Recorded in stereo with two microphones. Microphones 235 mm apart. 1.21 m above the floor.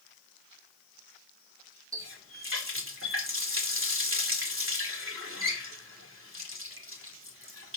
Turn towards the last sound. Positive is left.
turn(degrees=-60)  # may be behind; listen again after turning